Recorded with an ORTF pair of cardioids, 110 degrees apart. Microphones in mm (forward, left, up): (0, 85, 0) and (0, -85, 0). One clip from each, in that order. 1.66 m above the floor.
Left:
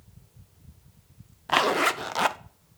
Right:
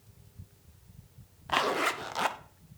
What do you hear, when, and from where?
1.5 s a zipper: 25° left, 0.8 m